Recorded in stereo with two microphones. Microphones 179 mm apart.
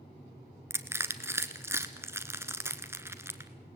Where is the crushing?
15° right (ahead or behind), 1.1 m.